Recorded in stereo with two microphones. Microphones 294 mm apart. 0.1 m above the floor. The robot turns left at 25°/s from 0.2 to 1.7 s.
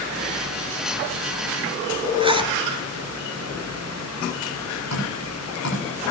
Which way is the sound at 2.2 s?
15° right (ahead or behind).